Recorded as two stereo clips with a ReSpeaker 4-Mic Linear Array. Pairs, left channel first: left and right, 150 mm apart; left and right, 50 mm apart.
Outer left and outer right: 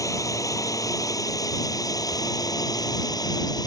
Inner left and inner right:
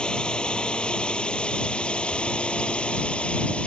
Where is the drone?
20° left (ahead or behind); by 3.7 s 25° left (ahead or behind).